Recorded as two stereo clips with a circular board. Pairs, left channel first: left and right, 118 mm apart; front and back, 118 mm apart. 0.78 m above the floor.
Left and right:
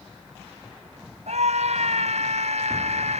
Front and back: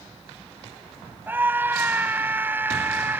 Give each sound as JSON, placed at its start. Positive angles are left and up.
{"t": 1.3, "sound": "a scream", "azimuth_deg": -110}